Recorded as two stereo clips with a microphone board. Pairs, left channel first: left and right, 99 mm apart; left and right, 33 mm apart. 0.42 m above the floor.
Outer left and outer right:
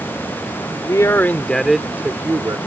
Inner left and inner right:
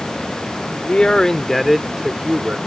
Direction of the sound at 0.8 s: 35° left (ahead or behind).